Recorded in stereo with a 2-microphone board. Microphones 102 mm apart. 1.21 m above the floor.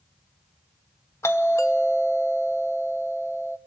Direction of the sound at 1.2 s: 25° left (ahead or behind).